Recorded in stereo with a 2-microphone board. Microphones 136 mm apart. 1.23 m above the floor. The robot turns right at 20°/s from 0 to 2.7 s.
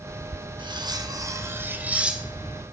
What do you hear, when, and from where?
0.6 s cutlery clinking: 40° right, 1.0 m; by 2.6 s 5° left, 1.0 m